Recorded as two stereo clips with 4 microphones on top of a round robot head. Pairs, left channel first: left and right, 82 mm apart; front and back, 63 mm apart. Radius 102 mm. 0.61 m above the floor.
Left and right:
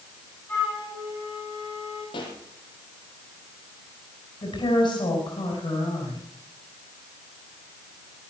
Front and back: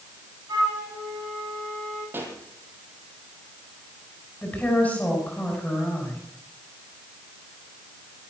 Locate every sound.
0.5 s a flute: 160° left, 6.5 m
2.1 s a pop: 125° left, 4 m
4.4 s a woman speaking: 65° left, 6 m